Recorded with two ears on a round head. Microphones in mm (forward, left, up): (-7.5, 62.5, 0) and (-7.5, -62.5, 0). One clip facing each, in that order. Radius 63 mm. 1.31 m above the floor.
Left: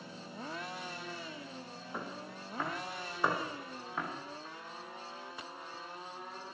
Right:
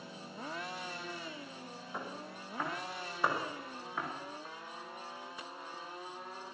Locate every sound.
1.9 s footsteps: centre (ahead or behind), 9.5 m